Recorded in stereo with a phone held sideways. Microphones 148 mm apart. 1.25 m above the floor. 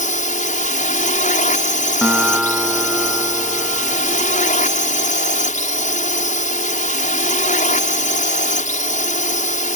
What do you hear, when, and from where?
0.0 s a drone: 65° left (ahead or behind)
2.0 s a guitar: 5° right (ahead or behind)